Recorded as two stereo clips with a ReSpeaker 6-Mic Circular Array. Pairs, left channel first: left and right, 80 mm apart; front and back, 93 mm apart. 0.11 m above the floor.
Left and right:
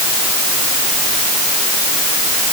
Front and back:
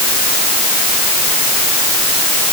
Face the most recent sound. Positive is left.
No sound to turn to.